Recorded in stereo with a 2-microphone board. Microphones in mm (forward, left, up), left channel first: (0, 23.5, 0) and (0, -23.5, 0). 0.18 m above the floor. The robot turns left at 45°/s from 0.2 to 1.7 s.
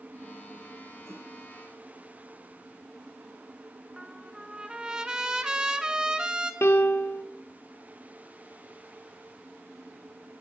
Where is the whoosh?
80° right, 9.5 m.